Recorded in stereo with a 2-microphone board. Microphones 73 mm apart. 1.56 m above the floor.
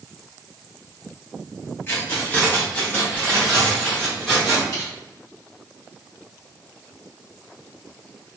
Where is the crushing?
50° left (ahead or behind), 1.9 m.